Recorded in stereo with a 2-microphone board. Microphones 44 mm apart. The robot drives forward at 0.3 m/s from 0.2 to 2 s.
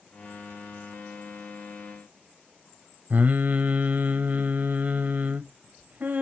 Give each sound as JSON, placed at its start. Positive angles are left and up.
{"t": 3.1, "sound": "singing", "side_deg": -45, "distance_m": 0.5}